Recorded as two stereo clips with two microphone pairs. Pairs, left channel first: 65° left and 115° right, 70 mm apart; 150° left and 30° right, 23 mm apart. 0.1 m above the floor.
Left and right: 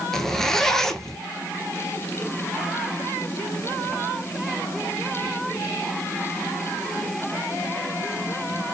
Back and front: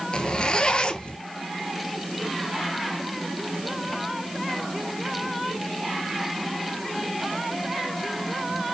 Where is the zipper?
145° left, 0.6 m.